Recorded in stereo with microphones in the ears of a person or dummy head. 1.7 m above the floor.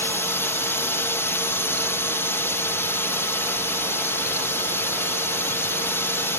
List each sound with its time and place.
0.0 s a drone: 10° left (ahead or behind)